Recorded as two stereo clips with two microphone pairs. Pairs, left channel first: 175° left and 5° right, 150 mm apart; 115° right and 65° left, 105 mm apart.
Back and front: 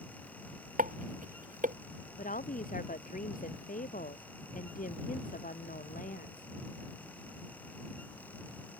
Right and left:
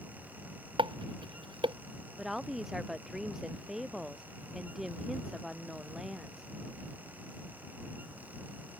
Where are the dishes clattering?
25° left.